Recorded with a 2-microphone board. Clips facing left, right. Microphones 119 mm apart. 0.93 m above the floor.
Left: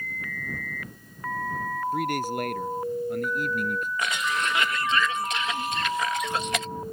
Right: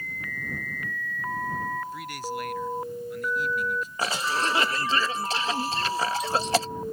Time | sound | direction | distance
1.9 | a man speaking | 55° left (ahead or behind) | ?
4.0 | a cough | 30° right (ahead or behind) | ?